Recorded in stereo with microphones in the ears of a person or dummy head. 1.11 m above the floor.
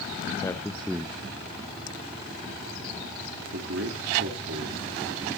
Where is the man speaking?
15° left (ahead or behind), 0.8 m; by 4.8 s 75° right (ahead or behind), 2.5 m.